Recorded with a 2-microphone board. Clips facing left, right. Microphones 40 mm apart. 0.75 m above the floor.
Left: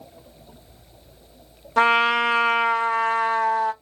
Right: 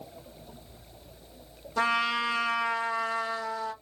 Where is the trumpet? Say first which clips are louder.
Left 9 dB; 65° left (ahead or behind), 1.0 m.